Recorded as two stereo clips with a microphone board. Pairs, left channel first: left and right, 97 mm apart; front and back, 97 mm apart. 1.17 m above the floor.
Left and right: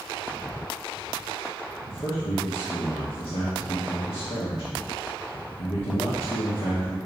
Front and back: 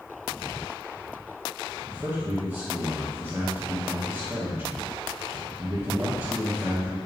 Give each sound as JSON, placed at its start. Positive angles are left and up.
{"t": 1.9, "sound": "a man speaking", "azimuth_deg": 110, "distance_m": 1.6}